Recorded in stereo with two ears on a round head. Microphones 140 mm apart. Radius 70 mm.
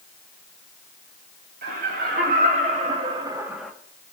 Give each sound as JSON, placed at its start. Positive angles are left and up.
{"t": 1.6, "sound": "laughter", "side_deg": -60, "distance_m": 3.0}